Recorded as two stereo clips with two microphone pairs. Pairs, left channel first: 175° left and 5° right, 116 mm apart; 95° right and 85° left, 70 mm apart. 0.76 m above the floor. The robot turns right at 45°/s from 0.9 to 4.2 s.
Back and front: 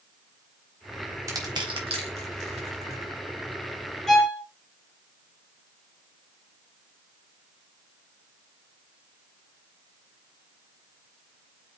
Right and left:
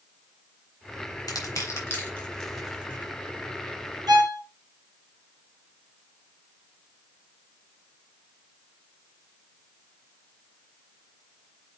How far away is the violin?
About 2 m.